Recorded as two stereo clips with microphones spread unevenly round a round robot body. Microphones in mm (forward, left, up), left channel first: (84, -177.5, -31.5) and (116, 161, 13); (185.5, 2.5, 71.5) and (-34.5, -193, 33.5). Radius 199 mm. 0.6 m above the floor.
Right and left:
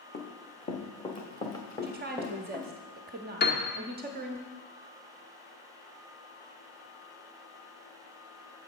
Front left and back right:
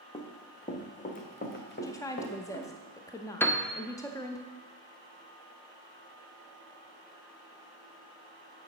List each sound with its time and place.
0.1 s running footsteps: 30° right, 1.9 m; by 2.8 s 5° right, 3 m
1.8 s a woman speaking: 120° left, 0.6 m
3.4 s a piano: 45° right, 1.0 m